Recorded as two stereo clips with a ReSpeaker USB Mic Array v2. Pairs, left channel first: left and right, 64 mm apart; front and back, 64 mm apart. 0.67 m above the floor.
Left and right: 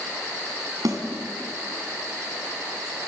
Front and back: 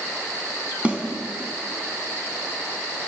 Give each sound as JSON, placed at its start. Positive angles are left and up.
{"t": 0.8, "sound": "a snare drum", "azimuth_deg": -110, "distance_m": 4.5}